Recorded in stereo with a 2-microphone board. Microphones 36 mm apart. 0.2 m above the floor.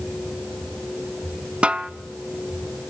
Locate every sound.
1.6 s a snare drum: 35° right (ahead or behind), 0.6 m